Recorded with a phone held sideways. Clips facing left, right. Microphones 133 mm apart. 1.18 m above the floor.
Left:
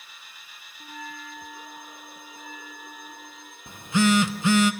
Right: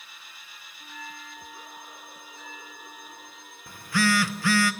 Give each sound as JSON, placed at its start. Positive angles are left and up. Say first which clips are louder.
{"t": 0.8, "sound": "a bell", "louder": "left 4 dB", "side_deg": 50, "distance_m": 1.1}
{"t": 3.7, "sound": "a phone buzzing", "louder": "left 4 dB", "side_deg": 20, "distance_m": 0.7}